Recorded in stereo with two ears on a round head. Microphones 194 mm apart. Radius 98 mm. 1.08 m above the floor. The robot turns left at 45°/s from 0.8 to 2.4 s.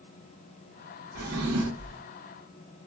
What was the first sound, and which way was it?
A drawer, 80° right.